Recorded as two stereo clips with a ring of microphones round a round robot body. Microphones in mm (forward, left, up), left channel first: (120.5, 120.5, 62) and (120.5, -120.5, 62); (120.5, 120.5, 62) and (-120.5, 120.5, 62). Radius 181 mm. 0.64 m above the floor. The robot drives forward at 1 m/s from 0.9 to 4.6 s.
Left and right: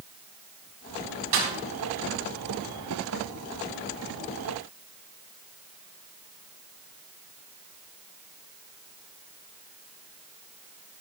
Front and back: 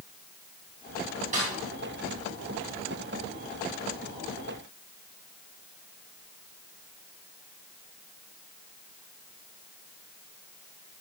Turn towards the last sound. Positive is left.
turn(degrees=-145)